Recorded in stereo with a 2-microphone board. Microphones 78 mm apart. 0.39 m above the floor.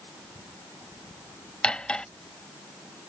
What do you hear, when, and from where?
1.6 s cutlery clinking: 10° left (ahead or behind)